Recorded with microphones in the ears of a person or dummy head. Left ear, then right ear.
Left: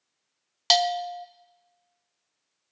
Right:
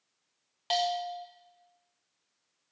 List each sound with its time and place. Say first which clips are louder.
0.7 s a bell: left 7 dB; 55° left (ahead or behind), 0.7 m